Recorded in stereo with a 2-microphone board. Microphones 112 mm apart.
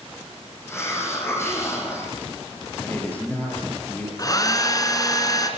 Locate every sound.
0.7 s a hiss: 25° left (ahead or behind), 6 m
2.8 s a man speaking: 15° left (ahead or behind), 6 m
4.2 s a hair dryer: 35° left (ahead or behind), 2.5 m